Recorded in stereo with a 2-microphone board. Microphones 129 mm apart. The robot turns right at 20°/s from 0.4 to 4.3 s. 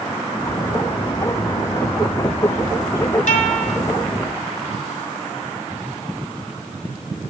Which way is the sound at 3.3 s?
80° left.